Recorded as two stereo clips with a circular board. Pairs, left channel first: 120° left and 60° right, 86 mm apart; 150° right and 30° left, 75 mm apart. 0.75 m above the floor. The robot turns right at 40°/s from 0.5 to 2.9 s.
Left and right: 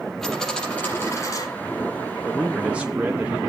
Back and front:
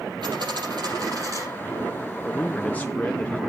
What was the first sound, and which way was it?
A dropped coin, 35° left.